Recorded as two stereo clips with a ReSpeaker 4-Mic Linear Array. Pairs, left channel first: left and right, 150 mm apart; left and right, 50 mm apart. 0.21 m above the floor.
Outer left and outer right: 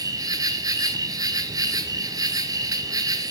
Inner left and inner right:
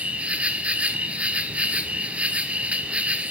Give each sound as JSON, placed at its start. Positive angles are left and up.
{"t": 0.0, "sound": "an insect", "side_deg": -25, "distance_m": 1.4}